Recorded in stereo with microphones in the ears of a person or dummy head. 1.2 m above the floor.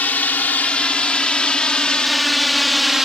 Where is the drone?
5° left (ahead or behind); by 3.0 s centre (ahead or behind).